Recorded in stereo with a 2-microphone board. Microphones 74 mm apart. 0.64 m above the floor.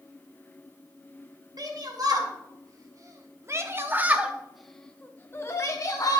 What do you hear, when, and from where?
1.6 s a shout: 65° right (ahead or behind), 2 m; by 6.2 s 55° left (ahead or behind), 1.3 m